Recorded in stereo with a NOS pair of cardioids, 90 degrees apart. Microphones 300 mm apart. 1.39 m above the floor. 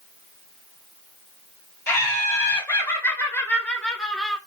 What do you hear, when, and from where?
1.9 s laughter: 10° left, 3 m; by 4.4 s straight ahead, 1.1 m